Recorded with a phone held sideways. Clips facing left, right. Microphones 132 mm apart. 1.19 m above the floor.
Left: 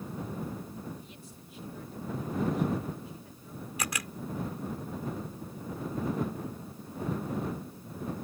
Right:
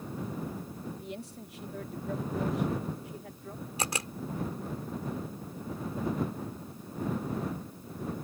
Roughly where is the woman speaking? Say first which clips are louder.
Right 8 dB; right.